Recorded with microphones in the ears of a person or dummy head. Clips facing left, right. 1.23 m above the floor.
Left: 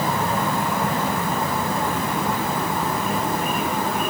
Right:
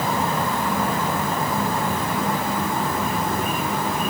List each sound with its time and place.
Only background noise.